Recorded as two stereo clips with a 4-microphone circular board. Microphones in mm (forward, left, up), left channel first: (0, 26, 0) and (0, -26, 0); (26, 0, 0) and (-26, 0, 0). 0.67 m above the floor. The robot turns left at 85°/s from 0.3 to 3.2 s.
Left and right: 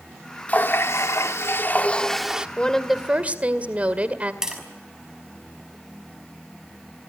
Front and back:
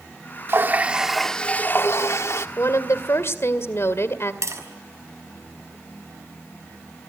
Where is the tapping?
170° right, 5.5 m.